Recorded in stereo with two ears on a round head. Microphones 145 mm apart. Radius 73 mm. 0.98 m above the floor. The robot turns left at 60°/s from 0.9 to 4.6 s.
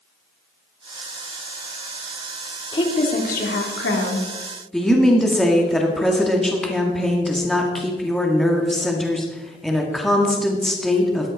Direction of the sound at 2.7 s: 150° left.